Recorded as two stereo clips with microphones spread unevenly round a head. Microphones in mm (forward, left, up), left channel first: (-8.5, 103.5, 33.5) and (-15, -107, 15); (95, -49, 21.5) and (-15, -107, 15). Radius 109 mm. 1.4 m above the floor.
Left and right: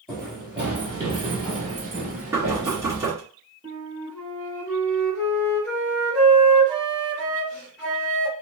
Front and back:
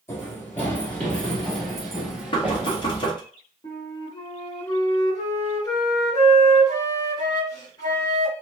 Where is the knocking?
15° right, 0.9 m.